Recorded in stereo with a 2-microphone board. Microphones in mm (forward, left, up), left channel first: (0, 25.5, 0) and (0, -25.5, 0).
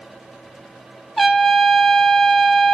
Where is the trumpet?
Centre (ahead or behind), 0.7 m.